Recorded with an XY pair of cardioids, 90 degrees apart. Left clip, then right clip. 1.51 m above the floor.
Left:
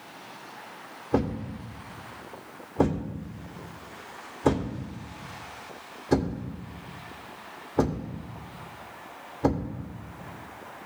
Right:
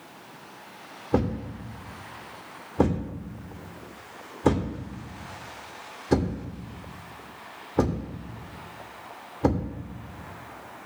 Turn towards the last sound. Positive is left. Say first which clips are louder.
# right 1 dB
turn(degrees=-15)